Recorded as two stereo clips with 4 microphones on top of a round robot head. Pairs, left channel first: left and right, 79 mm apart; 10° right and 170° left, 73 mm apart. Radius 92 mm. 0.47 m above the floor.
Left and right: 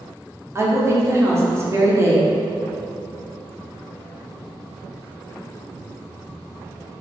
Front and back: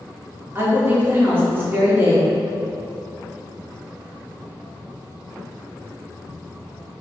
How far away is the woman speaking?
About 1.0 m.